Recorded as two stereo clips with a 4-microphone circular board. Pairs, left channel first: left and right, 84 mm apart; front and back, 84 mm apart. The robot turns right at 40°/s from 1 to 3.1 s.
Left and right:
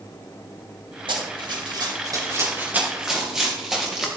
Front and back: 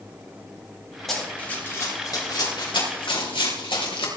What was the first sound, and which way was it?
Running footsteps, 90° right.